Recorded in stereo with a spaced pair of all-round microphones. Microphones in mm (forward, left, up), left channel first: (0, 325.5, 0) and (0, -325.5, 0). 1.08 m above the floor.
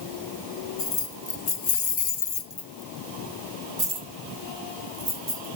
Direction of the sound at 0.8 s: 80° left.